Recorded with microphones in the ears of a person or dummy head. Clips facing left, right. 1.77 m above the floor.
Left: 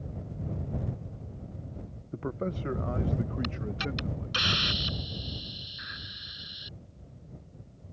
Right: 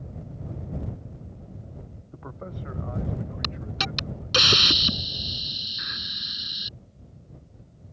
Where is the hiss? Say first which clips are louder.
Even; 70° right (ahead or behind).